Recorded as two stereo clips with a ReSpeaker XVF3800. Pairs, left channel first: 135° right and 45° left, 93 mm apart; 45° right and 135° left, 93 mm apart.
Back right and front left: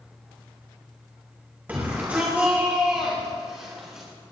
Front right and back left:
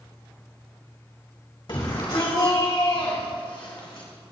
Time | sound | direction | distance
1.7 | a shout | 25° right | 2.5 m